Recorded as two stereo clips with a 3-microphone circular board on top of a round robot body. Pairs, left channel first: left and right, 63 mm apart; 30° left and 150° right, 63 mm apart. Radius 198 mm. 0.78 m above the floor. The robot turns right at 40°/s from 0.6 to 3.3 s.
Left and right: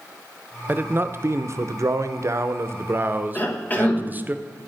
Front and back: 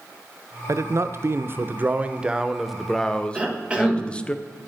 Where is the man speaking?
140° right, 0.7 m; by 4.3 s 40° right, 0.7 m.